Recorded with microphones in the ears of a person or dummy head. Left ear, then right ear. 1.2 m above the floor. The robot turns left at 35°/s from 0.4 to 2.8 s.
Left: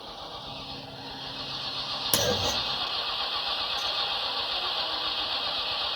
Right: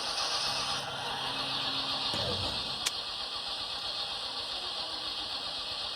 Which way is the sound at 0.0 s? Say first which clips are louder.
Right 7 dB; 115° right.